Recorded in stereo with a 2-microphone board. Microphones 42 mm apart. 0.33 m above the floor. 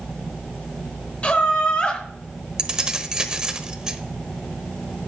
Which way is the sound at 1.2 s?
30° left (ahead or behind).